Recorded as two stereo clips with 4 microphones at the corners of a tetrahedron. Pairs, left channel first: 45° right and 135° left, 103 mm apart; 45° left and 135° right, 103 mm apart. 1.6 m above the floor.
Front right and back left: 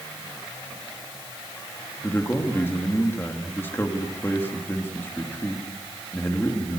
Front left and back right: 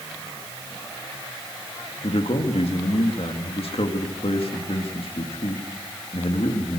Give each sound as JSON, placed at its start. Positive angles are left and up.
{"t": 2.0, "sound": "a man speaking", "azimuth_deg": 25, "distance_m": 3.0}